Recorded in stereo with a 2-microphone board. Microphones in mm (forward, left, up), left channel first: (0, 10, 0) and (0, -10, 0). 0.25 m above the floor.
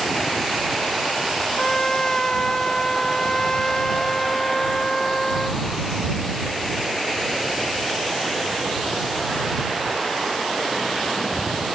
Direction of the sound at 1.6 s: 30° left (ahead or behind).